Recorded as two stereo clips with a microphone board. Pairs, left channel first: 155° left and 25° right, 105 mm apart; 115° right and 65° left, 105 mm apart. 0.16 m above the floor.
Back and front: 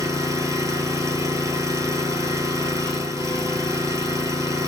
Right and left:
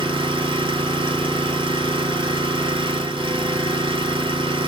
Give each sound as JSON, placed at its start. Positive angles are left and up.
{"t": 0.0, "sound": "an engine running", "azimuth_deg": 35, "distance_m": 0.8}